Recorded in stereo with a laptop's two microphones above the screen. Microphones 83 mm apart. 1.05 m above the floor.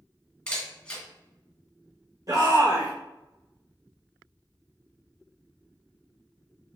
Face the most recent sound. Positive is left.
turn(degrees=-45)  # may be behind; listen again after turning